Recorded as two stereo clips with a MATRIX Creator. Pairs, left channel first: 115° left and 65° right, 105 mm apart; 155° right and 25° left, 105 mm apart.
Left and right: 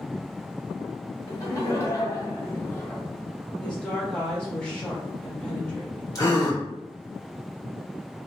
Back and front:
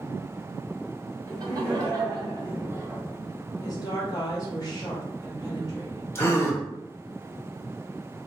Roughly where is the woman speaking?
Behind.